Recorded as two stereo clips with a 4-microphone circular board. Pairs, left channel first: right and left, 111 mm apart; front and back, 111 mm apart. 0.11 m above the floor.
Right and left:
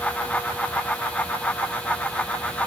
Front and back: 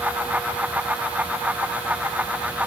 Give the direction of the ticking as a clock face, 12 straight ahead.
No ticking in this recording.